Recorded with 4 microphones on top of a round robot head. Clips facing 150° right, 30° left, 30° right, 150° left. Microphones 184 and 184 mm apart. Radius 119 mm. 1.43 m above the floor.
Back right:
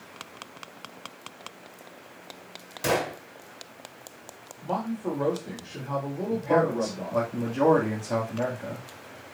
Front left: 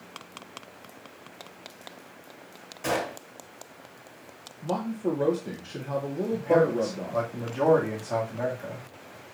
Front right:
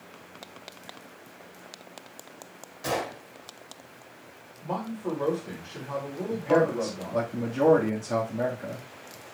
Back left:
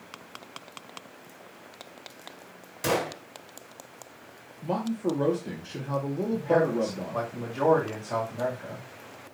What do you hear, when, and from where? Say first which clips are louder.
2.8 s a gunshot: back right 2 dB, back left 3 dB; 170° left, 1.7 m
4.6 s a man speaking: front left 2 dB, back left 4 dB; 95° left, 1.8 m
6.3 s a man speaking: front left 1 dB, front right 1 dB; 85° right, 2.5 m